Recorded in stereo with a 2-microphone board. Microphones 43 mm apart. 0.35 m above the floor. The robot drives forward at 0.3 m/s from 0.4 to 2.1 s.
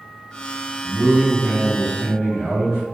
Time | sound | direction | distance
0.8 | a man speaking | 25° left (ahead or behind) | 1.8 m